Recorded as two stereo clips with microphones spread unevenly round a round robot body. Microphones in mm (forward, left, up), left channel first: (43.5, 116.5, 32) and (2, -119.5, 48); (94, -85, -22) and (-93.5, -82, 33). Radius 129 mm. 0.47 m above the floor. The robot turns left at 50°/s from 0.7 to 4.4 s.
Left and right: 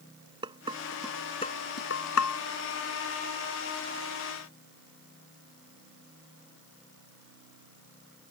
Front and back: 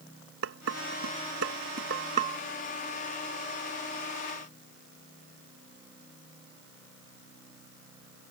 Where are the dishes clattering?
175° right; by 2.4 s 100° left.